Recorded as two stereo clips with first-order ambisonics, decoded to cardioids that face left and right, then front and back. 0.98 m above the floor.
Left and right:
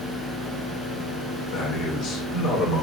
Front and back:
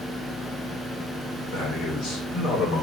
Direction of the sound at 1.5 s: 55° left.